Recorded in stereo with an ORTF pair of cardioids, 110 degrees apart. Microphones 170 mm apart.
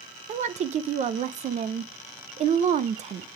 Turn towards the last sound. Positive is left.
turn(degrees=-45)